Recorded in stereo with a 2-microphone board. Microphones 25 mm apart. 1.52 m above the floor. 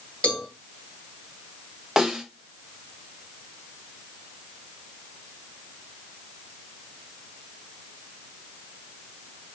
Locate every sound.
0.2 s a cowbell: 50° left (ahead or behind), 2 m
2.0 s a snare drum: 20° right (ahead or behind), 2 m